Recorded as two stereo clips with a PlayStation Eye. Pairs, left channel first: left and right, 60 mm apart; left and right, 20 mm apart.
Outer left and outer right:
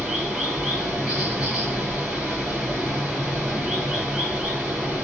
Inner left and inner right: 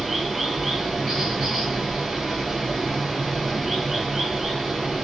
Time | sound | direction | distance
0.0 | running water | 10° right (ahead or behind) | 1.7 m